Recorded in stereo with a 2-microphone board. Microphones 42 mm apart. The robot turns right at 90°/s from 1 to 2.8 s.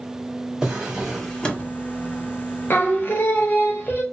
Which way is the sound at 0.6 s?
15° right.